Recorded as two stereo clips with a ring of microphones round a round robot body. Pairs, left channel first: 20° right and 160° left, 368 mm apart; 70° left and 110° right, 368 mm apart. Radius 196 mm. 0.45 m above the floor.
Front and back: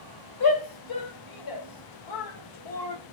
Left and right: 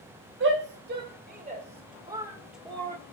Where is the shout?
55° right, 2.5 m; by 3.0 s 10° right, 1.5 m.